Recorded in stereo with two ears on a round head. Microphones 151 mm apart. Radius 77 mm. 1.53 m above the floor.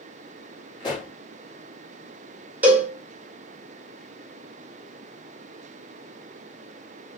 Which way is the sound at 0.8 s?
25° left (ahead or behind).